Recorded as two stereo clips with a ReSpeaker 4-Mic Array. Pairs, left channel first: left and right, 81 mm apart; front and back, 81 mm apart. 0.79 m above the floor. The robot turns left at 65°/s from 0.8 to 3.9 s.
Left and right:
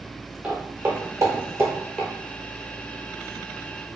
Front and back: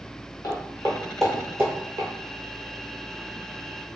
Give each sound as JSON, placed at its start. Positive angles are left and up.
{"t": 0.4, "sound": "footsteps", "azimuth_deg": -20, "distance_m": 1.1}